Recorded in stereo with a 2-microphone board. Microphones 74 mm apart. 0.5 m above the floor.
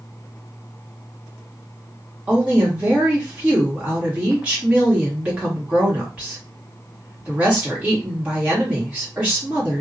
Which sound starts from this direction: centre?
A woman speaking, at 2.3 s.